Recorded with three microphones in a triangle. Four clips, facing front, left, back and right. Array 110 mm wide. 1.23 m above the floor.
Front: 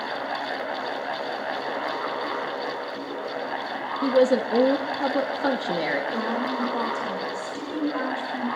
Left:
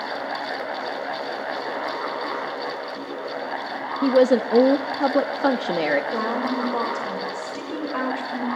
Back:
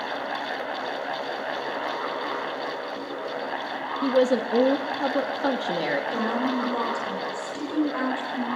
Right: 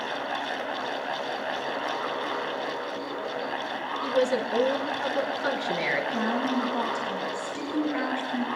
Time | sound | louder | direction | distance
4.0 | a woman speaking | left 8 dB, front 2 dB | 85° left | 2 m
6.1 | a woman speaking | left 2 dB, back 1 dB | 95° left | 6 m